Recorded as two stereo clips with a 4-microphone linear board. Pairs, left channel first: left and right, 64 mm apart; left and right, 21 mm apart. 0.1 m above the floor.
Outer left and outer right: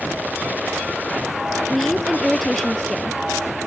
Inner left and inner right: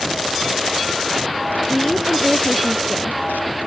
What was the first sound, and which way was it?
A woman speaking, 5° left (ahead or behind).